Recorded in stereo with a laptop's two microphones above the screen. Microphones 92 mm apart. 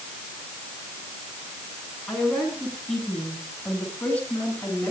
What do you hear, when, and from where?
2.1 s a woman speaking: centre (ahead or behind), 8 m; by 4.9 s 20° left (ahead or behind), 8.5 m